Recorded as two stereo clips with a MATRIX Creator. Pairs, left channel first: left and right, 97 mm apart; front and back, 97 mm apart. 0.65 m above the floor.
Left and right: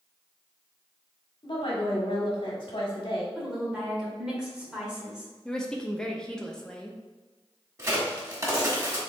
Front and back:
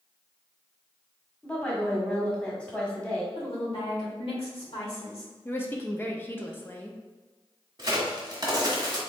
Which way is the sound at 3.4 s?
10° right.